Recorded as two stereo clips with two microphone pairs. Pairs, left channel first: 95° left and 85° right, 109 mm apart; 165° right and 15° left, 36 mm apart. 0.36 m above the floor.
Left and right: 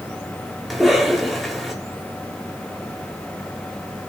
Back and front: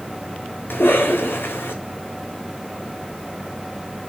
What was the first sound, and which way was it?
A cough, 175° right.